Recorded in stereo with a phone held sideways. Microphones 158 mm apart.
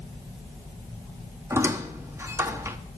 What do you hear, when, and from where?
1.5 s a squeak: 15° right (ahead or behind), 1.0 m